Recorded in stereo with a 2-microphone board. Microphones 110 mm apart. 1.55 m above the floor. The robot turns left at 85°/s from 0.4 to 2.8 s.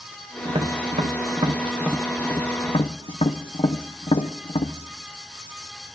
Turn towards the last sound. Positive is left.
turn(degrees=60)  # may be behind; listen again after turning